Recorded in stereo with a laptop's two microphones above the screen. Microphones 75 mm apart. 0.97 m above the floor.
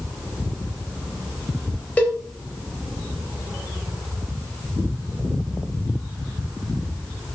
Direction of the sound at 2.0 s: 20° left (ahead or behind).